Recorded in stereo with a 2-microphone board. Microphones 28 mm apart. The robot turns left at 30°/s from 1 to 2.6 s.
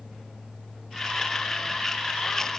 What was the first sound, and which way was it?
Only background noise.